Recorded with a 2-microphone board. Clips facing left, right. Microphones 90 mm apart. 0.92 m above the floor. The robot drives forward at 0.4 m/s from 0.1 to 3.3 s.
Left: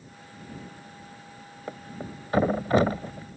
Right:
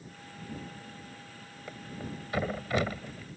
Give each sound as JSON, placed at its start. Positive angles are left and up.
{"t": 1.7, "sound": "a thud", "side_deg": 35}